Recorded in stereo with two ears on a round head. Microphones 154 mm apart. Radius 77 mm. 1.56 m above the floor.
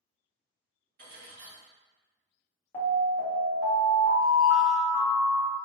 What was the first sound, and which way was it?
Cutlery clinking, 55° right (ahead or behind).